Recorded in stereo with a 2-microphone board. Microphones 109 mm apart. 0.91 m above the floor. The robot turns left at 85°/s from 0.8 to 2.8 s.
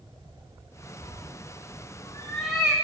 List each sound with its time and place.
1.0 s a cat meowing: 50° left (ahead or behind), 7.5 m; by 2.7 s 25° right (ahead or behind), 7.5 m